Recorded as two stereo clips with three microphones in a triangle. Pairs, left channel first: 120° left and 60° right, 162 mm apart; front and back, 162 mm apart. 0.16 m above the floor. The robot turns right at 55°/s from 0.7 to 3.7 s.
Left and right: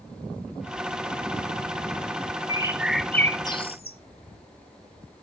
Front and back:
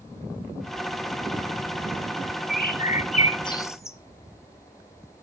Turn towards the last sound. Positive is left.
turn(degrees=70)